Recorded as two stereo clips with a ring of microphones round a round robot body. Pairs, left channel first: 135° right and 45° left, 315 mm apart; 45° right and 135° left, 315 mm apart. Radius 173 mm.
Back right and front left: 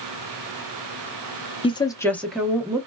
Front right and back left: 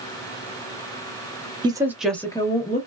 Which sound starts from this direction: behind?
A woman speaking, at 1.6 s.